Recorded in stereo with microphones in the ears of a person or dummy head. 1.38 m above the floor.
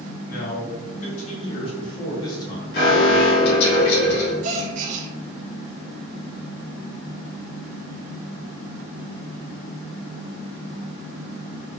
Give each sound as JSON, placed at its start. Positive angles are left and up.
{"t": 0.3, "sound": "a man speaking", "side_deg": 55, "distance_m": 1.9}
{"t": 2.7, "sound": "an alarm", "side_deg": 65, "distance_m": 1.9}
{"t": 4.4, "sound": "a gasp", "side_deg": -45, "distance_m": 0.9}